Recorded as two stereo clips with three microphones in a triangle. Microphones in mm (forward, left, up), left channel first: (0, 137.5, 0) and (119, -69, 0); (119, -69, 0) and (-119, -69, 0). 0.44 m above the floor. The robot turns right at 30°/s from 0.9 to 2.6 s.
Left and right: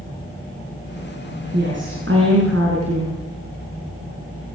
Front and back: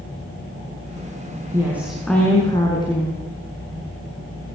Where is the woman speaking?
105° right, 6 m; by 3.2 s 70° right, 6 m.